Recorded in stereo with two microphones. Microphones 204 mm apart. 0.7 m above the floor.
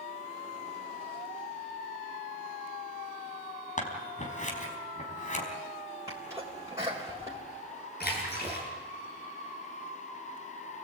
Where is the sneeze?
15° right (ahead or behind), 4 m.